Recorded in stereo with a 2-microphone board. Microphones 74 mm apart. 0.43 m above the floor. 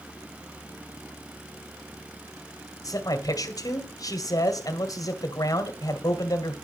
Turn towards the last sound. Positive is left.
turn(degrees=55)  # may be behind; listen again after turning